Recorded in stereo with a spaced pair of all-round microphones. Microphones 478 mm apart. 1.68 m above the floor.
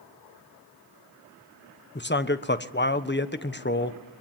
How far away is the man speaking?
About 1.3 m.